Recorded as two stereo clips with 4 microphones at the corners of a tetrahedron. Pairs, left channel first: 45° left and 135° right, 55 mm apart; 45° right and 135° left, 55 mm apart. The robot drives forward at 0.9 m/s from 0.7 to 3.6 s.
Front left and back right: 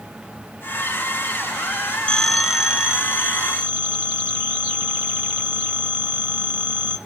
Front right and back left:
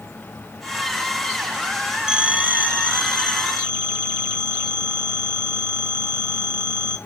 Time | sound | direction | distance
2.1 | a phone ringing | 80° left | 0.6 m